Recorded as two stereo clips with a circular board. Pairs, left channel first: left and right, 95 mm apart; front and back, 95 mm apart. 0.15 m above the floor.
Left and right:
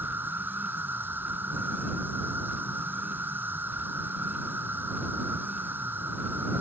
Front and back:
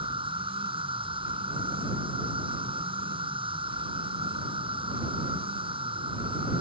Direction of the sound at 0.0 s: 160° right.